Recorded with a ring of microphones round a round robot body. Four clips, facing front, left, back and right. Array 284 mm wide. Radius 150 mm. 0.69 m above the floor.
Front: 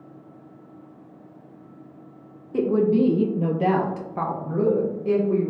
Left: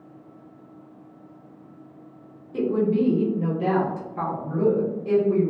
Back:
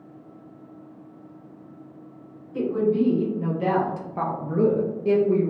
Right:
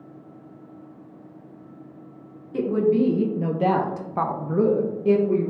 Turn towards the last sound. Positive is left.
turn(degrees=-135)